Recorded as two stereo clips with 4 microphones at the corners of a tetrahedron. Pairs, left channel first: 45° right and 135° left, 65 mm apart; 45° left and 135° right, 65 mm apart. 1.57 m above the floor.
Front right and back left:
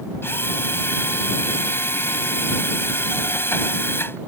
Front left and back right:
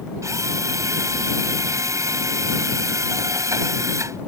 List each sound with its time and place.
0.2 s a drill: 100° right